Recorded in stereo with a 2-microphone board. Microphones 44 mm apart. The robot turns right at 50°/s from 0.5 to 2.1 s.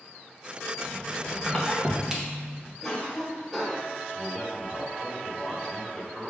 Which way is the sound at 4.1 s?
Centre (ahead or behind).